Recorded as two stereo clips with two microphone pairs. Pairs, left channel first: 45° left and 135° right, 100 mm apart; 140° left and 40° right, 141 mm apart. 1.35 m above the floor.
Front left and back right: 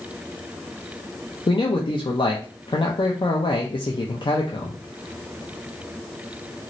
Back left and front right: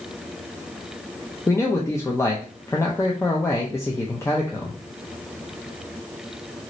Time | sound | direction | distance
1.5 | a man speaking | 75° left | 0.5 m